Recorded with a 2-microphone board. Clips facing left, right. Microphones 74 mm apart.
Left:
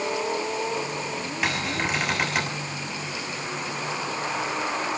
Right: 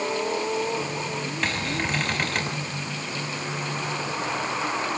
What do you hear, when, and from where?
1.4 s a cupboard door: 5° left (ahead or behind), 6 m